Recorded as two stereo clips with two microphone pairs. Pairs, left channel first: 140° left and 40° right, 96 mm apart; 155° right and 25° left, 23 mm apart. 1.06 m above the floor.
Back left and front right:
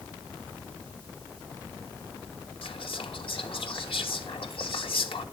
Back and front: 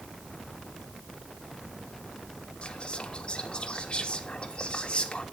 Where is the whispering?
165° left, 1.4 m.